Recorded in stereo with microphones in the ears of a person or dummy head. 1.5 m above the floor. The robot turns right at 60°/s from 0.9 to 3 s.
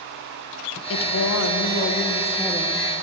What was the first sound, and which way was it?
A woman speaking, 70° left.